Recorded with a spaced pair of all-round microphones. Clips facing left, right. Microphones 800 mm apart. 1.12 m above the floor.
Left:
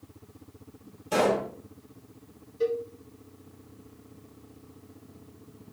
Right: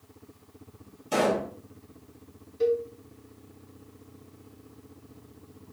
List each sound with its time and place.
1.1 s a pop: 10° left (ahead or behind), 1.4 m
2.6 s a cowbell: 30° right (ahead or behind), 0.7 m